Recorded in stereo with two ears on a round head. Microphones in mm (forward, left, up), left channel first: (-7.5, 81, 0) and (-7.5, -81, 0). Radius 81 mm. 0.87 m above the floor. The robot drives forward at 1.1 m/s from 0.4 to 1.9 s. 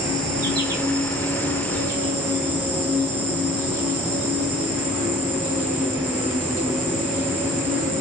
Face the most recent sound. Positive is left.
turn(degrees=-15)  # may be behind; listen again after turning